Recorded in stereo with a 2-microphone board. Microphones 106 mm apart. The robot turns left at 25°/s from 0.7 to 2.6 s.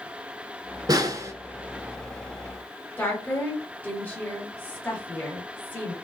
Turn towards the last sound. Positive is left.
turn(degrees=15)  # may be behind; listen again after turning